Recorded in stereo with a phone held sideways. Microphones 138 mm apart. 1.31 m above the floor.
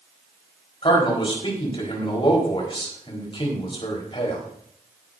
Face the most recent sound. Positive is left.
turn(degrees=40)  # may be behind; listen again after turning